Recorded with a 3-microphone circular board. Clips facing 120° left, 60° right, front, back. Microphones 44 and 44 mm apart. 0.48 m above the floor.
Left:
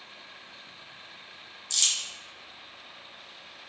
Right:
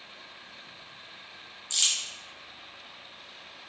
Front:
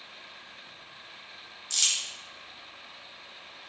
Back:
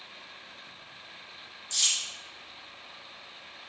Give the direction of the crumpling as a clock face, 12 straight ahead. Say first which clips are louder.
Right 1 dB, even; 12 o'clock.